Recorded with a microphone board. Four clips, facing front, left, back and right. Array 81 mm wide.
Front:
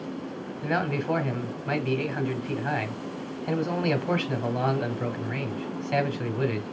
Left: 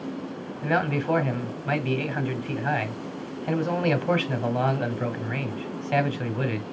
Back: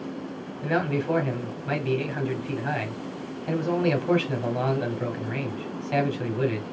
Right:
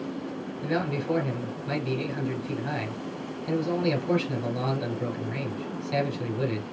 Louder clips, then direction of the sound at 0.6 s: Left 4 dB, back 2 dB; 90° left.